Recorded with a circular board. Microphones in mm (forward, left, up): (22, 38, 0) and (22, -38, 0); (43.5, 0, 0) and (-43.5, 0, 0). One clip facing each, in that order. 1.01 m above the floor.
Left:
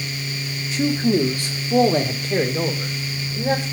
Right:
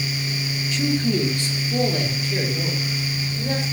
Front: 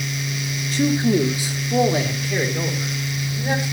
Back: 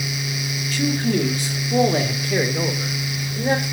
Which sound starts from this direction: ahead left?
A man speaking, at 0.7 s.